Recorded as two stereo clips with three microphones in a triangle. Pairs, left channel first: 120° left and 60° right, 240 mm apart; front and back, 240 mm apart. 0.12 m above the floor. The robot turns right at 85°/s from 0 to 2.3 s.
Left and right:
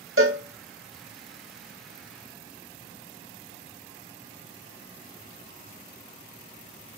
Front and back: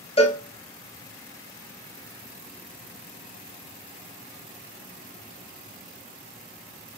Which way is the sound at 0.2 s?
65° right.